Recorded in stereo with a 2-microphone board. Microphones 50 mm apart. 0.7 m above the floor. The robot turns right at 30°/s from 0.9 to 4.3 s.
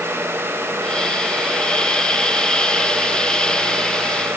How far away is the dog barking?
No dog barking in this recording.